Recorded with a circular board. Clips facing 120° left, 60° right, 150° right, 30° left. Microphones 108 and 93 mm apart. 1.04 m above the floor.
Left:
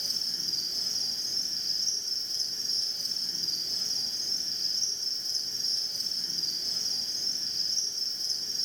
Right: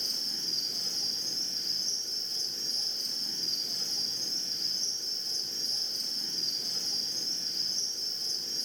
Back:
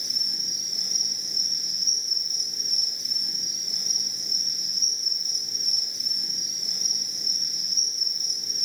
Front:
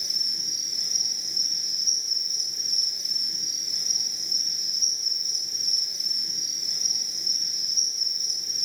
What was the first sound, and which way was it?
An insect, 105° right.